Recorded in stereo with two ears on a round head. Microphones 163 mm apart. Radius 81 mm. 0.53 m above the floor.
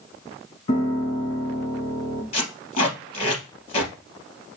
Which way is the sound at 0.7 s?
35° left (ahead or behind).